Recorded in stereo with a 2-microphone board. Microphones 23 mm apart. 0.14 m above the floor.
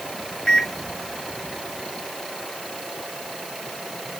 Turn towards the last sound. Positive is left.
turn(degrees=35)  # may be behind; listen again after turning